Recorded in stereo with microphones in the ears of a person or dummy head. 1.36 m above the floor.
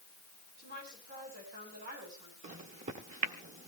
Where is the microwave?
40° right (ahead or behind), 1.4 m.